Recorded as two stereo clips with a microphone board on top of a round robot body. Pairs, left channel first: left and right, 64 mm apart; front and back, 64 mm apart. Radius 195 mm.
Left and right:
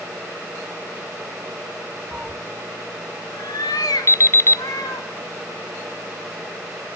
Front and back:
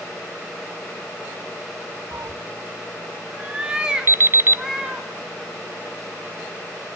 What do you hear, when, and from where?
2.1 s a cat meowing: 150° right, 0.5 m; by 5.1 s 100° left, 4 m
4.1 s an alarm clock: 130° left, 0.8 m